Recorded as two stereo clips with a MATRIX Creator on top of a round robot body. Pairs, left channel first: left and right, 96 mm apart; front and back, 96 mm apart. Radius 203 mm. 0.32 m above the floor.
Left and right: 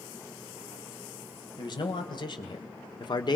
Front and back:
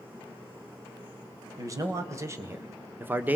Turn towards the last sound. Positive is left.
turn(degrees=110)